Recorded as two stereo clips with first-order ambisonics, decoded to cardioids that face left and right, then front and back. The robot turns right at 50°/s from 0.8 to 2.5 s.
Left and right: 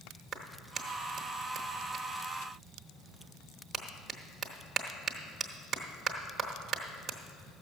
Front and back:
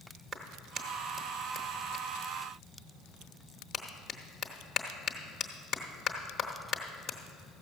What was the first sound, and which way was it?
A clap, 120° right.